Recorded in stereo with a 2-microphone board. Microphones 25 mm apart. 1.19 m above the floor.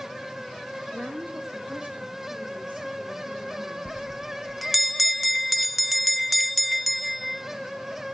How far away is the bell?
About 0.6 m.